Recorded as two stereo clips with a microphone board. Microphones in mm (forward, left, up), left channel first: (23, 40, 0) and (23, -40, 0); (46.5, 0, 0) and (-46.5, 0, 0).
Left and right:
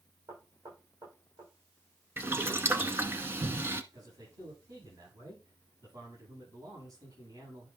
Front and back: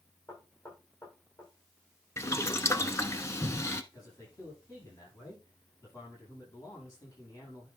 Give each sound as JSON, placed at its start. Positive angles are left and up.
{"t": 0.3, "sound": "knocking", "azimuth_deg": -70, "distance_m": 7.5}
{"t": 2.2, "sound": "boiling", "azimuth_deg": -40, "distance_m": 0.8}
{"t": 3.9, "sound": "a man speaking", "azimuth_deg": -60, "distance_m": 8.0}